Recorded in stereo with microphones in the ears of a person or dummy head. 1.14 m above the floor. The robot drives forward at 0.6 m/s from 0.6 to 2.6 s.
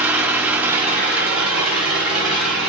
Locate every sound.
0.0 s an engine running: 15° right (ahead or behind), 1.4 m; by 2.7 s 5° right (ahead or behind), 2.5 m